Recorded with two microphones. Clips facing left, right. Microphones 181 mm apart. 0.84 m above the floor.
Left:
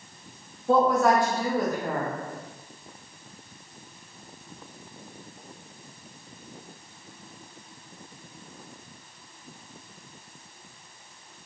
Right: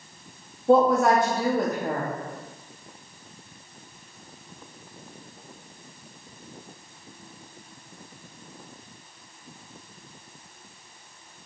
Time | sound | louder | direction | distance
0.7 | a woman speaking | right 2 dB | 20° right (ahead or behind) | 0.5 m